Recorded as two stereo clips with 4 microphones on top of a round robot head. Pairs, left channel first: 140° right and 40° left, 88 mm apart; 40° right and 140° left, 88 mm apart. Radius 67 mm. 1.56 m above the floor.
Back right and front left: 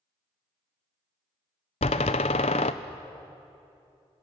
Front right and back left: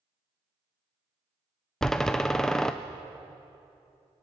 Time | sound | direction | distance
1.8 | a door slam | 125° right | 0.5 m